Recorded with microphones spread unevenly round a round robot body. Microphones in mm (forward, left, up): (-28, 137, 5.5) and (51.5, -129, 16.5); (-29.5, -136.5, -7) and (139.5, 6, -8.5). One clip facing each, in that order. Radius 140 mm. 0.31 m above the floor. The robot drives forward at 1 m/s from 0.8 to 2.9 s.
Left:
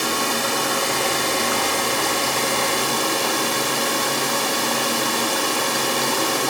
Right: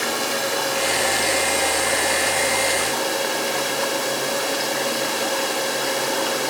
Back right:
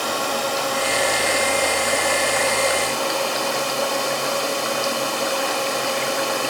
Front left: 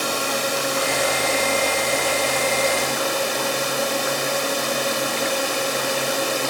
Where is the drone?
50° left; by 6.5 s 65° left.